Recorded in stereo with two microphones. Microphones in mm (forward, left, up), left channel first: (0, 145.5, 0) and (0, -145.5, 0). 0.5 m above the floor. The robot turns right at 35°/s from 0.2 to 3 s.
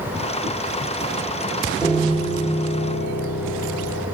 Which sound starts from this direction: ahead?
A piano, at 1.8 s.